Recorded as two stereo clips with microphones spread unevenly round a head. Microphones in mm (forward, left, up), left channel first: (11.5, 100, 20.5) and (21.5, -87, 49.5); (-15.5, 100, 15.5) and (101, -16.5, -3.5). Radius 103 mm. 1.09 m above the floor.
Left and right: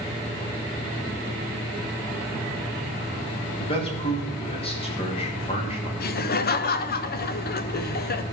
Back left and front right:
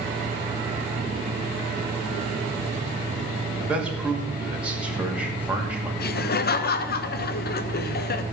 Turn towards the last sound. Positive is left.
turn(degrees=115)